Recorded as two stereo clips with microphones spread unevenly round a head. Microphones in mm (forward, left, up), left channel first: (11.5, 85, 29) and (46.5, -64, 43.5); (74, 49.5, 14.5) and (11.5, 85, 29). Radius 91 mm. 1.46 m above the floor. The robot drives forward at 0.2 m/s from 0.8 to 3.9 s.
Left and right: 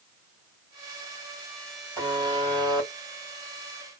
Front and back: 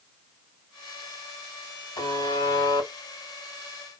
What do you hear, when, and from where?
2.0 s a buzzer: 15° right, 1.8 m